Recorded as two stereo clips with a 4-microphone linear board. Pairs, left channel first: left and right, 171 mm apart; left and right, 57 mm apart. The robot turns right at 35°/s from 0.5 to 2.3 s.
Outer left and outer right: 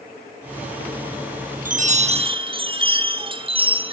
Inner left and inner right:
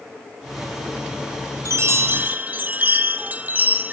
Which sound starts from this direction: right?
A chime, at 1.6 s.